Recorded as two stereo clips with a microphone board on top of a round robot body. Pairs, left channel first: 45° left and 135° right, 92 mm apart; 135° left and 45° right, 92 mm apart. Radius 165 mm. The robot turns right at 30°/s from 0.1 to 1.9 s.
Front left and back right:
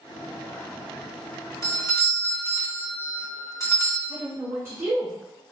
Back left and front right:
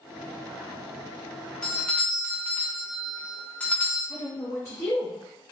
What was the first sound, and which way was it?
A doorbell, 60° left.